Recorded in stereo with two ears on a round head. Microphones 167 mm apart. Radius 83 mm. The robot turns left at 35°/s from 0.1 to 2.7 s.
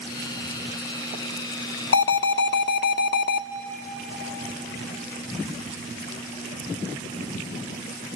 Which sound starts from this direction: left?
An alarm, at 1.9 s.